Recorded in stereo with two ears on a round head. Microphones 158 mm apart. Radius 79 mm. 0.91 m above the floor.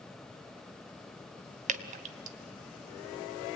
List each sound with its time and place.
1.7 s dripping: 45° right (ahead or behind), 0.8 m